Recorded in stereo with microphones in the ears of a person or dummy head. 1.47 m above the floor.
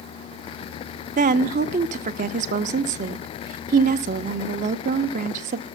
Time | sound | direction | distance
1.2 | a woman speaking | 40° right (ahead or behind) | 0.7 m